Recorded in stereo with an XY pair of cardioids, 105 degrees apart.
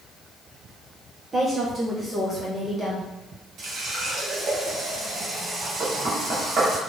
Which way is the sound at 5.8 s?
40° right.